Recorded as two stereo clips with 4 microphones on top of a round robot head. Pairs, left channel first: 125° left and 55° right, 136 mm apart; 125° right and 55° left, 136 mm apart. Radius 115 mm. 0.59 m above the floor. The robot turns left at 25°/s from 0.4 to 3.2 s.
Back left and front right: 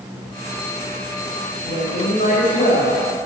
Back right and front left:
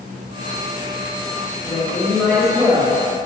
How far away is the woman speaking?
About 3 m.